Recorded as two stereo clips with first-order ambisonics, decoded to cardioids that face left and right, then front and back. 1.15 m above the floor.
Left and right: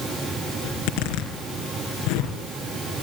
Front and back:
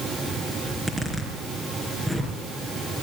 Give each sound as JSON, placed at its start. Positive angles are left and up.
{"t": 0.6, "sound": "a zipper", "azimuth_deg": 100, "distance_m": 4.5}